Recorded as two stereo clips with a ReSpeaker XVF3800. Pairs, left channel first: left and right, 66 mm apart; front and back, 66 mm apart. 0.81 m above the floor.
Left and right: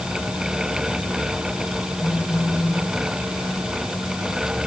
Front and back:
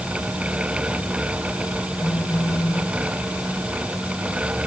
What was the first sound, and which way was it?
A phone buzzing, 45° left.